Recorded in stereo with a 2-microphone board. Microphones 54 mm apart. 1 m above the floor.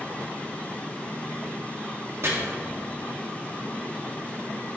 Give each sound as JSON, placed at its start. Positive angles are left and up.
{"t": 2.2, "sound": "chopping", "side_deg": -55, "distance_m": 2.0}